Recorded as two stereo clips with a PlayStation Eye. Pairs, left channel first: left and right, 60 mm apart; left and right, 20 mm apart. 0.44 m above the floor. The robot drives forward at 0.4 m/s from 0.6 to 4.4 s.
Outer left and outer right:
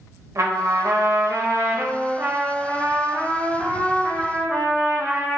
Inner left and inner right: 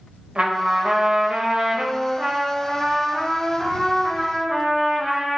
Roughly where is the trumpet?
Right.